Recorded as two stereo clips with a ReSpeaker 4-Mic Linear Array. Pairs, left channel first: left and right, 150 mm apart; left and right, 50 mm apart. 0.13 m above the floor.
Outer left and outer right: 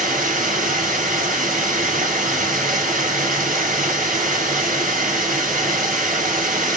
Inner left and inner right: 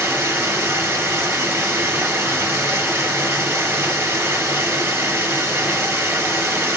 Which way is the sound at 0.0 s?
60° right (ahead or behind).